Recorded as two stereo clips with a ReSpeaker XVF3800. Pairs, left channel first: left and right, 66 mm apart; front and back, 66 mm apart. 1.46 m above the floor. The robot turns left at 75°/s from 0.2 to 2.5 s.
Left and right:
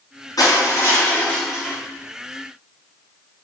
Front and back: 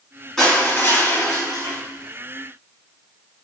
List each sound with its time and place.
0.4 s crushing: 80° left, 3.5 m; by 1.8 s 20° right, 3.5 m